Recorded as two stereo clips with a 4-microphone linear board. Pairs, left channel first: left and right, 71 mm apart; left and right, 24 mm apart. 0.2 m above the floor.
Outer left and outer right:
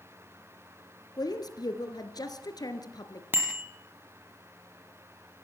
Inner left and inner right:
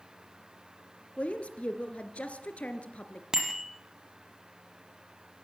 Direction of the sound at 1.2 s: 65° left (ahead or behind).